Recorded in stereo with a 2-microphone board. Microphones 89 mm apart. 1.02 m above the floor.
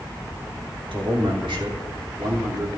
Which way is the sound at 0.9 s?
80° right.